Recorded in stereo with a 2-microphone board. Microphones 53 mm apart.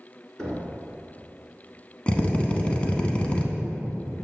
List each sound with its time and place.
0.4 s knocking: 15° left (ahead or behind), 1.5 m
2.1 s a drill: 20° left (ahead or behind), 0.7 m